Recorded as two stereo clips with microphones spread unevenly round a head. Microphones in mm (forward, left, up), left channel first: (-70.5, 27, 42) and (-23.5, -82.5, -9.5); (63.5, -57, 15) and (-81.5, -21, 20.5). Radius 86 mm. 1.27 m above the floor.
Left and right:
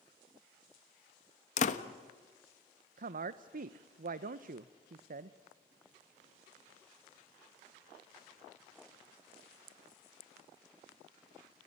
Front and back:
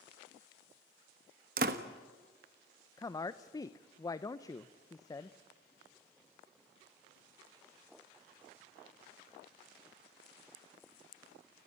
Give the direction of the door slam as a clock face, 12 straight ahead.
8 o'clock.